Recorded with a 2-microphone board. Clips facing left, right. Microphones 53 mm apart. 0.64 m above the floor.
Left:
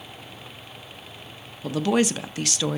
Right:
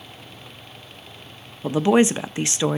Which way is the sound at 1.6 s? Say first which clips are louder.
Right 5 dB; 20° right (ahead or behind).